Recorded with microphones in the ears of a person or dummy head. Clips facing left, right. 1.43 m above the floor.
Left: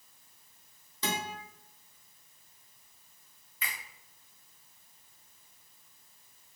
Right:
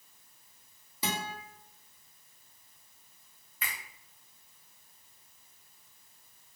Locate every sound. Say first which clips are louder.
1.0 s a guitar: left 1 dB; 5° right (ahead or behind), 0.8 m
3.6 s a finger snap: even; 50° right (ahead or behind), 1.3 m